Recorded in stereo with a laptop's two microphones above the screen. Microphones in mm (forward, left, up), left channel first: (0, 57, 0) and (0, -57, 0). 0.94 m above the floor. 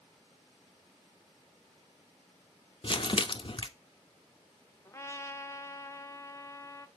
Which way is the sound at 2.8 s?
50° left (ahead or behind).